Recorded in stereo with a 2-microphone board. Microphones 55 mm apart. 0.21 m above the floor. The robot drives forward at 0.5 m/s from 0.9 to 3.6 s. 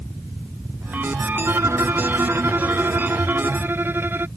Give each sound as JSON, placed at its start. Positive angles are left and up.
{"t": 1.4, "sound": "a violin", "side_deg": -60}